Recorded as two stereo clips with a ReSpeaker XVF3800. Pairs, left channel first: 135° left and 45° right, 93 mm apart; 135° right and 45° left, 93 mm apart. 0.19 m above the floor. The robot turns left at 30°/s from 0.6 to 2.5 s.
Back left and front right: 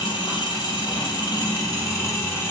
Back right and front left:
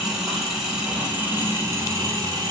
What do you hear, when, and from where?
0.0 s an engine running: 130° left, 1.0 m; by 2.5 s 75° left, 1.0 m